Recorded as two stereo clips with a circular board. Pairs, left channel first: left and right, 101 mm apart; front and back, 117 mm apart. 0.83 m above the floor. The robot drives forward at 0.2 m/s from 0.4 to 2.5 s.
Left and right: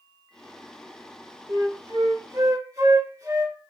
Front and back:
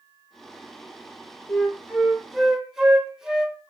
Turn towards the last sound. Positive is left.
turn(degrees=-100)